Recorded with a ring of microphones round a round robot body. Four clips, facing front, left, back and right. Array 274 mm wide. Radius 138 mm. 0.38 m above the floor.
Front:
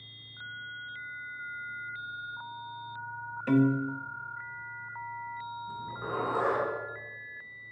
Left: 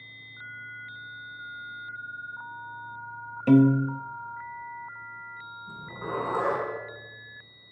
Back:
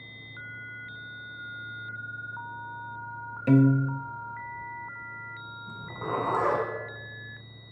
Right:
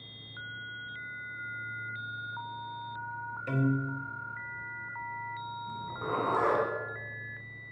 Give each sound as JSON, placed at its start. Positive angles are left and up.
{"t": 3.5, "sound": "a piano", "azimuth_deg": 125, "distance_m": 0.8}
{"t": 5.7, "sound": "a zipper", "azimuth_deg": -165, "distance_m": 4.5}